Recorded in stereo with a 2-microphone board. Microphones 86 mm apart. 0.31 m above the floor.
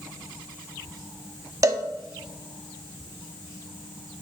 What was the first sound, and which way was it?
A cowbell, 40° right (ahead or behind).